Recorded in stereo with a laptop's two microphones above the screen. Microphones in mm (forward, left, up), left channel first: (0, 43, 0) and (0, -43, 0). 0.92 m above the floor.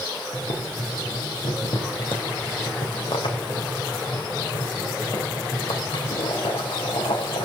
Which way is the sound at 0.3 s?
80° left.